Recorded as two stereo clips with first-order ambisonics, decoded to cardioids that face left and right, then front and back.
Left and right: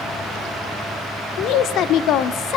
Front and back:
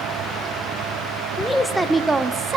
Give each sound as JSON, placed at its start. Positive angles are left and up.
{"t": 1.4, "sound": "a woman speaking", "azimuth_deg": 80, "distance_m": 1.3}